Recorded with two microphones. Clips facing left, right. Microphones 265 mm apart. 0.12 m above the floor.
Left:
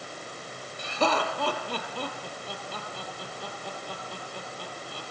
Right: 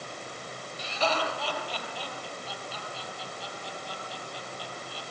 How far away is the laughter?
About 4.5 m.